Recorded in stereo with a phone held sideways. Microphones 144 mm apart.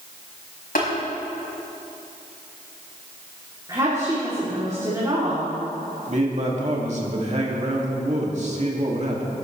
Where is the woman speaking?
25° right (ahead or behind), 3.5 m.